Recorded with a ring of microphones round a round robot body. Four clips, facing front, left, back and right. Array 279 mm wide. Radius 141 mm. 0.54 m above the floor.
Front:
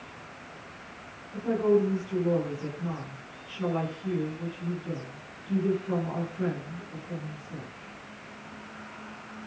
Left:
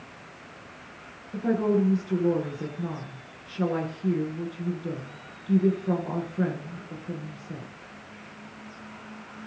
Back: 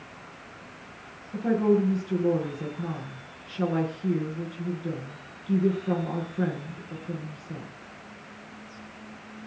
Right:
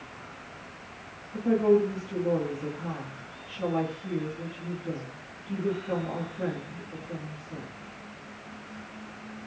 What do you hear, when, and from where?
1.3 s a woman speaking: 130° left, 8 m